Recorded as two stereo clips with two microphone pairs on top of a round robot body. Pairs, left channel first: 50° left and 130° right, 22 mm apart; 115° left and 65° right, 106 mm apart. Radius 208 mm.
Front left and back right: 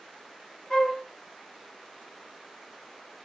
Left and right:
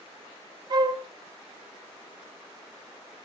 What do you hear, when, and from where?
0.7 s a flute: 15° right, 1.3 m